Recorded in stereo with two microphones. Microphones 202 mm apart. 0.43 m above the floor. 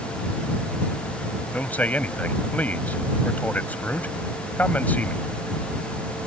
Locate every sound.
1.5 s a man speaking: 10° left (ahead or behind)